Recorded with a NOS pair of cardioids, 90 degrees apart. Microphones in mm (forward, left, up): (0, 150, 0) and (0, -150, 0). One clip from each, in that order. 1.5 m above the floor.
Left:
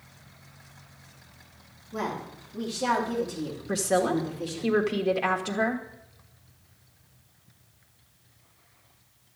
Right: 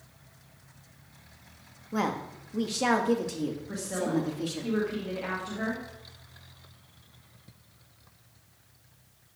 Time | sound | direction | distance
1.9 | a woman speaking | 55° right | 2.5 m
3.7 | a woman speaking | 65° left | 1.5 m